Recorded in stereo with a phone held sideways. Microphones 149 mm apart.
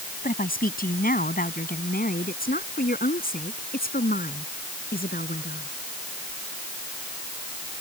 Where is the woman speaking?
70° left (ahead or behind); by 5.7 s 80° left.